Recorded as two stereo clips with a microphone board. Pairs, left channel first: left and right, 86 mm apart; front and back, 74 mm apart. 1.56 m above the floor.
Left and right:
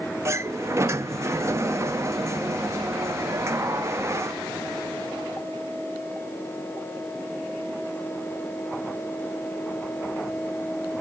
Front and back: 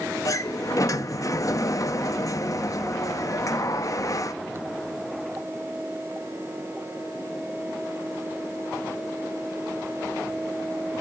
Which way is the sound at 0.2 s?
35° right.